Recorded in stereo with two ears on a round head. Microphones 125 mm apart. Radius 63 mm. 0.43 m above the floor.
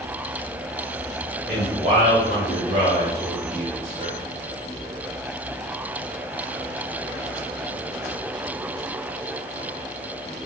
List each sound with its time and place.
1.5 s a man speaking: 40° right (ahead or behind), 2.0 m; by 4.2 s 35° right (ahead or behind), 1.0 m